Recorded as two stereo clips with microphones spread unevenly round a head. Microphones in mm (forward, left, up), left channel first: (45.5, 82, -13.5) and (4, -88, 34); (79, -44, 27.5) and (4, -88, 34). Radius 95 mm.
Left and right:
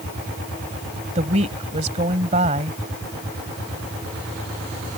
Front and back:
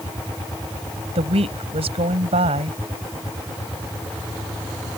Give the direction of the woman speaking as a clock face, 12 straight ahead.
5 o'clock.